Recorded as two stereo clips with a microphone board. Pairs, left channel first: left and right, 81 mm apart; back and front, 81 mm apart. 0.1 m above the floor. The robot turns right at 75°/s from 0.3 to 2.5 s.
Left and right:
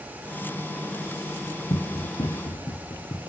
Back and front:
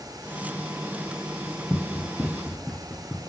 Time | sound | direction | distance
1.7 | running footsteps | 80° left | 0.8 m